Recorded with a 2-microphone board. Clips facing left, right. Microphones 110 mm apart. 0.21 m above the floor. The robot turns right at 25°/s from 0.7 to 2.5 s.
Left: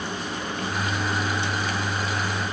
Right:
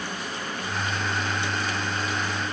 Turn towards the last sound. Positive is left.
No sound to turn to.